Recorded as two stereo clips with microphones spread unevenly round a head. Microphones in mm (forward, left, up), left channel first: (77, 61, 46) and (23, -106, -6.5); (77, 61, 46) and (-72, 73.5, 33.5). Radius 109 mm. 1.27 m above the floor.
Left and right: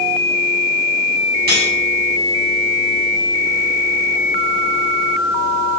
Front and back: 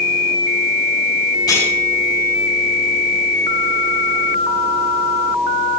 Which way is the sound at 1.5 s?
75° right.